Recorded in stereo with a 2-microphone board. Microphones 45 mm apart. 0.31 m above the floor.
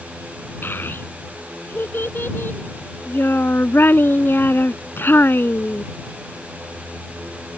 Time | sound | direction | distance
0.6 | a child speaking | 55° left (ahead or behind) | ?